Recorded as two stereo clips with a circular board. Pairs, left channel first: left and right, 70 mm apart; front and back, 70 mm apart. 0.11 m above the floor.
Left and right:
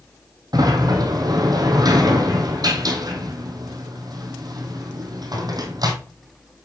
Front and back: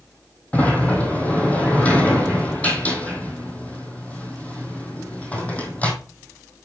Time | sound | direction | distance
0.5 | a sliding door | 70° right | 1.7 m